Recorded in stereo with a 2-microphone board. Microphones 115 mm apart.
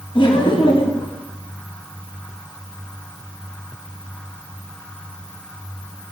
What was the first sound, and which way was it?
Laughter, 45° left (ahead or behind).